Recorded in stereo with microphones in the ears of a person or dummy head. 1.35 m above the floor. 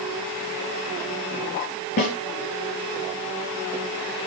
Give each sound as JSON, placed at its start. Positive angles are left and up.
{"t": 2.0, "sound": "a snare drum", "side_deg": 45, "distance_m": 6.5}